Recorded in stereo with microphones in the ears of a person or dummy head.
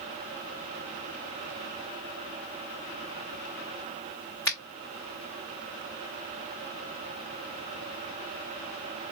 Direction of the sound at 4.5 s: 10° left (ahead or behind).